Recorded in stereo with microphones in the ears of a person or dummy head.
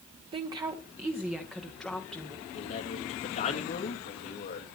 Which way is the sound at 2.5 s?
40° left (ahead or behind).